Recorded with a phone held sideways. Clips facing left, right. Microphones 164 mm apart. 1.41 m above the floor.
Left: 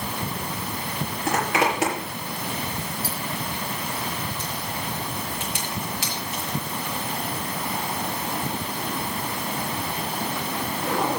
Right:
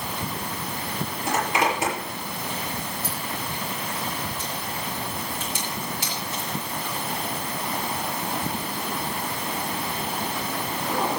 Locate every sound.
1.3 s a zipper: 75° left (ahead or behind), 6 m